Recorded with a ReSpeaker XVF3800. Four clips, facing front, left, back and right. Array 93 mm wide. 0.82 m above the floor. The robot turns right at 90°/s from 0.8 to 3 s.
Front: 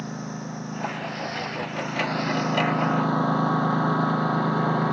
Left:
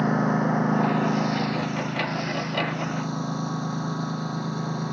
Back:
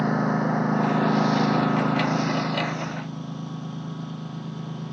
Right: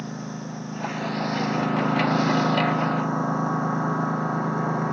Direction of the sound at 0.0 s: 135° left.